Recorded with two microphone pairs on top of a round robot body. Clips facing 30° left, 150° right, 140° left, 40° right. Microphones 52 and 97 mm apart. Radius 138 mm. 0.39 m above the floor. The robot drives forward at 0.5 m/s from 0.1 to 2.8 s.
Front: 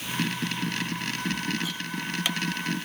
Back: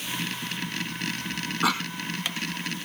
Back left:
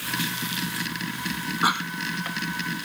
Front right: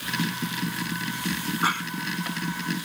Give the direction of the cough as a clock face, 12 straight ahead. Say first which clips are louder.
Back 8 dB, back left 3 dB; 5 o'clock.